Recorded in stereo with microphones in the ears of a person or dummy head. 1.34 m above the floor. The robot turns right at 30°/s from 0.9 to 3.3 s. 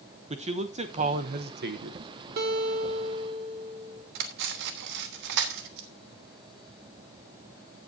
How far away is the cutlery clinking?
About 1.3 m.